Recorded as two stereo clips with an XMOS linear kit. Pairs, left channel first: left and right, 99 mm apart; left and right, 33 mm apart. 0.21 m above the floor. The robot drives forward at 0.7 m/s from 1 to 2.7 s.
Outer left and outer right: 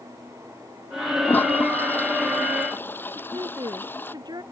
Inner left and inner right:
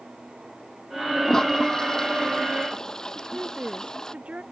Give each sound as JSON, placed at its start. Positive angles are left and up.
{"t": 1.2, "sound": "a toilet flushing", "side_deg": 15}
{"t": 3.1, "sound": "a woman speaking", "side_deg": -40}